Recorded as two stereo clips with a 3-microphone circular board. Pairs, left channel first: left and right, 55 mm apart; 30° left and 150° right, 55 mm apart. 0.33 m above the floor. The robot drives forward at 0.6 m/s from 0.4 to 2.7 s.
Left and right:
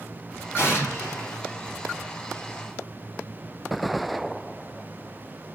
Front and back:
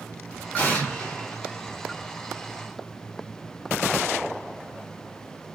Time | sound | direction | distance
0.6 | an explosion | 75° left | 1.9 m